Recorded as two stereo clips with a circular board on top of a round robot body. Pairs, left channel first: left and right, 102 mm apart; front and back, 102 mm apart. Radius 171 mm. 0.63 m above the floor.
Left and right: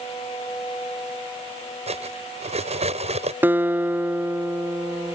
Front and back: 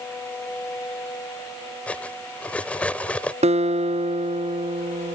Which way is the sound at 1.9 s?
80° right.